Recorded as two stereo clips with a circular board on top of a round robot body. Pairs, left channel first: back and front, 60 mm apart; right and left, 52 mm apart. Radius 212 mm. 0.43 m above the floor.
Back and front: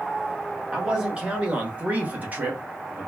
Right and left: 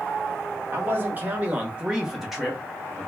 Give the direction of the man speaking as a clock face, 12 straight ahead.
10 o'clock.